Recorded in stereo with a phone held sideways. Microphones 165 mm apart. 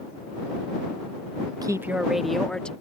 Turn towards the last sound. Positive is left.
turn(degrees=5)  # may be behind; listen again after turning